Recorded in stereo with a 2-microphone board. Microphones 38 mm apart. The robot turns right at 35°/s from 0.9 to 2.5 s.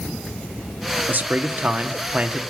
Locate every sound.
1.1 s a man speaking: 90° right, 1.2 m; by 2.4 s 45° right, 1.2 m